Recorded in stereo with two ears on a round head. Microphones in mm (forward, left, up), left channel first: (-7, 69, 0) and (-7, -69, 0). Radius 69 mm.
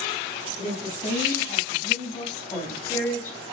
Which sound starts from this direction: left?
A woman speaking, at 0.6 s.